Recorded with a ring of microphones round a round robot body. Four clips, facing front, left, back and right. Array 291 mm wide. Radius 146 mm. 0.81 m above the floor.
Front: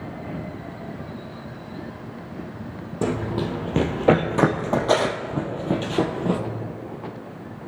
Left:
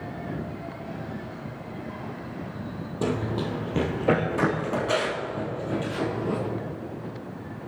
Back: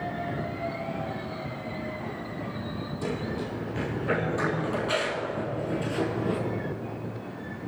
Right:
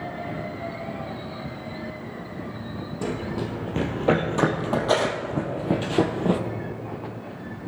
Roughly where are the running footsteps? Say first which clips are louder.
Left 2 dB, front 8 dB; ahead.